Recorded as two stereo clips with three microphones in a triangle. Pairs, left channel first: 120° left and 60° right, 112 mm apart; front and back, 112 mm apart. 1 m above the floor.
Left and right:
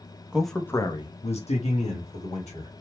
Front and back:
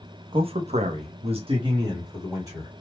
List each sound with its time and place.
0.3 s a man speaking: 140° right, 0.7 m; by 2.7 s 115° left, 1.6 m